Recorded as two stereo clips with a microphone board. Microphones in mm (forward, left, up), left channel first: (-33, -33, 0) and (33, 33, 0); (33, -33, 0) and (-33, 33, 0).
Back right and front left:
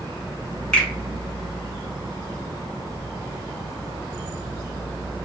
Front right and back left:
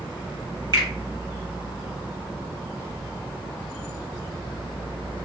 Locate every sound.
0.7 s a finger snap: 145° left, 1.3 m